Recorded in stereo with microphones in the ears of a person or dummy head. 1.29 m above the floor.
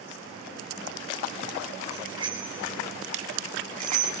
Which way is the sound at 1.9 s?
25° right (ahead or behind).